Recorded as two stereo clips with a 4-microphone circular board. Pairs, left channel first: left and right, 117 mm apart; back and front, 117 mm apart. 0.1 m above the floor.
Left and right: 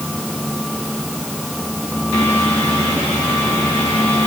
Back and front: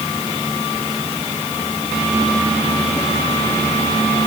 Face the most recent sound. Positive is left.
No sound to turn to.